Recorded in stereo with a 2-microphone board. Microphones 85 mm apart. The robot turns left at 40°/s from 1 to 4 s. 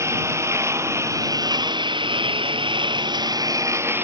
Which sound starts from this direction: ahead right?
A lawn mower, at 0.0 s.